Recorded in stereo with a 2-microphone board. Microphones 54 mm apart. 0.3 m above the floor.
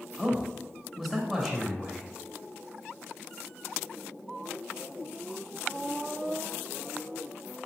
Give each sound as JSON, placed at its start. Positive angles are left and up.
{"t": 0.2, "sound": "a man speaking", "side_deg": -5, "distance_m": 1.0}